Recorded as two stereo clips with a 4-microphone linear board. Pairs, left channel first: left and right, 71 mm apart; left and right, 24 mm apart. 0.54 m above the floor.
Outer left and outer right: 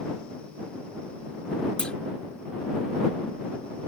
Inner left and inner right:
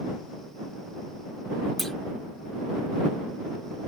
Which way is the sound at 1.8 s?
15° left (ahead or behind).